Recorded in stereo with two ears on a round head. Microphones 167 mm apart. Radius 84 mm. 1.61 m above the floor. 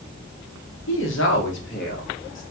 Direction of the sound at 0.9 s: 75° left (ahead or behind).